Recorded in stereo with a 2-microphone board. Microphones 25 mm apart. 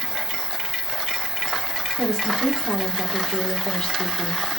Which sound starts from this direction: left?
A woman speaking, at 2.0 s.